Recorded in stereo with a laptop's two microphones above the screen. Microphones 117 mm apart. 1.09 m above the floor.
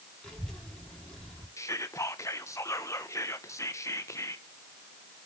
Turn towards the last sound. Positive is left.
turn(degrees=25)  # may be behind; listen again after turning